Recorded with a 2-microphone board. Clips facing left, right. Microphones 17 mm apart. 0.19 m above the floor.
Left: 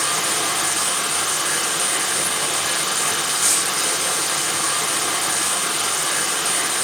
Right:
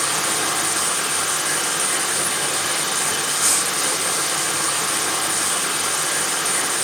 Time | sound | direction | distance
0.0 | running water | 35° left (ahead or behind) | 3 m